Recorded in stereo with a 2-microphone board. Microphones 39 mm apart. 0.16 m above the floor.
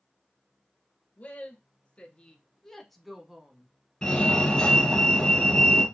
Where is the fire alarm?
20° left (ahead or behind), 2.5 m.